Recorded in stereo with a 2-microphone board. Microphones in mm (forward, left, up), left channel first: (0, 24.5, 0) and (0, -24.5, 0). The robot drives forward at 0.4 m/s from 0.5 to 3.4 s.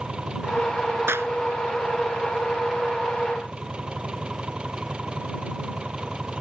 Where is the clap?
55° right (ahead or behind); by 1.3 s 60° right (ahead or behind).